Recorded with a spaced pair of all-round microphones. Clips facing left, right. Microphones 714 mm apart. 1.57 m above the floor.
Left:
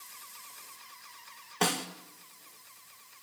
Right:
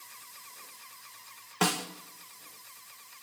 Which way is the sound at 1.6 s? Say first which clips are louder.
Right 1 dB; 40° right (ahead or behind).